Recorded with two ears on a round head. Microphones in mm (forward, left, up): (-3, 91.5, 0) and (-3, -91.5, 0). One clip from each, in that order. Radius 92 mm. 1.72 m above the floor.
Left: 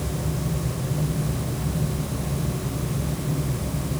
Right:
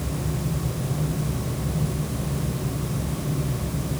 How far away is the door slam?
No door slam in this recording.